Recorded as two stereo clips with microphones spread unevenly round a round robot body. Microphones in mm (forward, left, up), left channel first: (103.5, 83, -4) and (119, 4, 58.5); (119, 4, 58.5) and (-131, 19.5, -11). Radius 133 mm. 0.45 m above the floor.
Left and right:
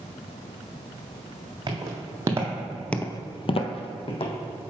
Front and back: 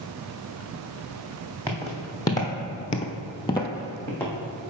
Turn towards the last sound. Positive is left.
turn(degrees=75)